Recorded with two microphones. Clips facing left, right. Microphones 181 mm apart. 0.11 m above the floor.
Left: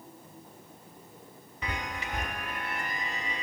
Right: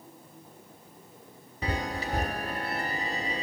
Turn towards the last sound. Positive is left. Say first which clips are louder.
# right 5 dB
turn(degrees=-35)  # may be behind; listen again after turning